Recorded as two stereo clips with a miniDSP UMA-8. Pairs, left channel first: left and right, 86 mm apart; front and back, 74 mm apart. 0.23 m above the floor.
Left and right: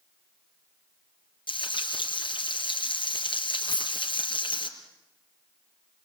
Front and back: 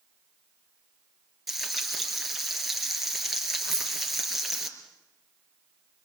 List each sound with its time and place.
1.5 s frying: 90° left, 5 m
3.7 s a dropped coin: 120° left, 2 m